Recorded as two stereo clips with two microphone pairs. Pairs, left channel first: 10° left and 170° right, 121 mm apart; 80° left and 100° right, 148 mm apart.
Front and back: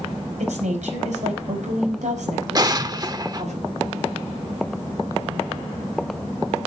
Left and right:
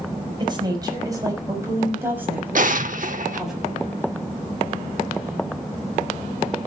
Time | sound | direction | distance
0.4 | a woman speaking | 160° right | 5 m
2.5 | an explosion | 120° right | 0.8 m